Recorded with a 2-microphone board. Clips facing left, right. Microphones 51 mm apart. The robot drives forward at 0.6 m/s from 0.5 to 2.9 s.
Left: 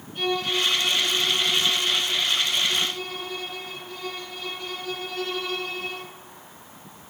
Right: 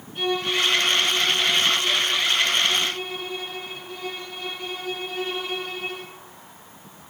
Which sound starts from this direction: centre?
A violin, at 0.1 s.